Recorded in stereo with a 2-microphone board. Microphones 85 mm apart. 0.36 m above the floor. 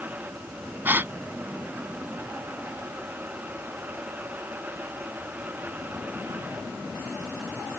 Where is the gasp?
25° right (ahead or behind).